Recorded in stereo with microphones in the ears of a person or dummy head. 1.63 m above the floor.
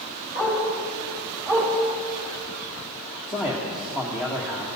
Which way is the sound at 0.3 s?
15° right (ahead or behind).